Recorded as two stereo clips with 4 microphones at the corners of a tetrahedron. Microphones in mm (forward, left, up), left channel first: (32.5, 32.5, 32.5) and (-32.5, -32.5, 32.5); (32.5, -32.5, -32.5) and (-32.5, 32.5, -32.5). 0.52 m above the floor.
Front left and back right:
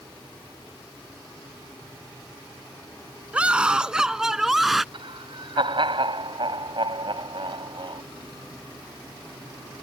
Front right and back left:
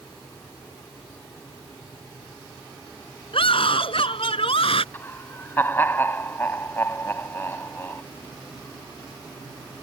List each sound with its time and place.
3.3 s a scream: 60° right; by 4.8 s 45° right
4.9 s laughter: 110° right